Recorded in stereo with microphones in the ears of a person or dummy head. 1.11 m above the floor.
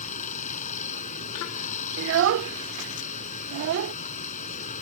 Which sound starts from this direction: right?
A child speaking, at 2.0 s.